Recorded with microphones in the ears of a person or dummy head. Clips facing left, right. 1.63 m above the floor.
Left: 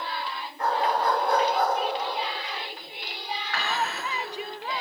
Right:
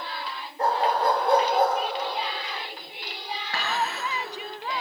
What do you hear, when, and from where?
0.6 s a dog barking: 30° right (ahead or behind), 3.5 m; by 1.8 s 20° right (ahead or behind), 2.5 m
3.5 s dishes clattering: 25° right (ahead or behind), 5.5 m